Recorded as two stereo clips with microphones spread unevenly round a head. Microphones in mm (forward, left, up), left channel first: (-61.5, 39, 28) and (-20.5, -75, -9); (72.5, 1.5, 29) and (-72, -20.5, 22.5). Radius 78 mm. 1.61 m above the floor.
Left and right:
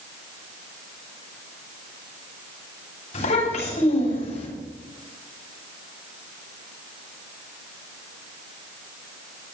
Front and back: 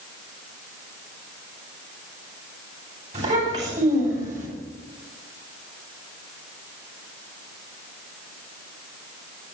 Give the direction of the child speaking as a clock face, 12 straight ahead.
8 o'clock.